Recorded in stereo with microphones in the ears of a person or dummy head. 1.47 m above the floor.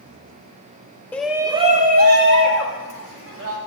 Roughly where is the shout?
Centre.